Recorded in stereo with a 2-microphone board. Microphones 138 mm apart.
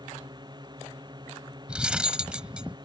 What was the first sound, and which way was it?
A drone, 30° right (ahead or behind).